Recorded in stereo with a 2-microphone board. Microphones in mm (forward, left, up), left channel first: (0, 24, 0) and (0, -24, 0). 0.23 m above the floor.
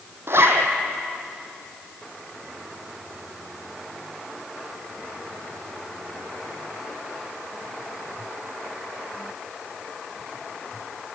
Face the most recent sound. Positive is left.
turn(degrees=-60)  # may be behind; listen again after turning